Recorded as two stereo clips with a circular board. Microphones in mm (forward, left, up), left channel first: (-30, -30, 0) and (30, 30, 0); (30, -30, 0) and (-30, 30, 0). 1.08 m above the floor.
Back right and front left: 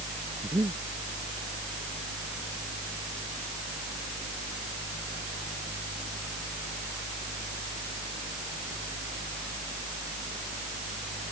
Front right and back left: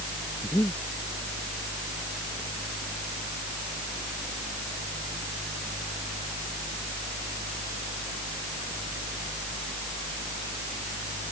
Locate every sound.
0.4 s breathing: 5° left